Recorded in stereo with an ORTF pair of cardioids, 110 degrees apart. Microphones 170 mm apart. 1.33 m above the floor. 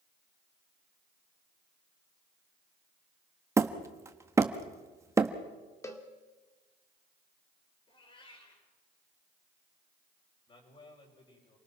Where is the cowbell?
15° left, 2 m.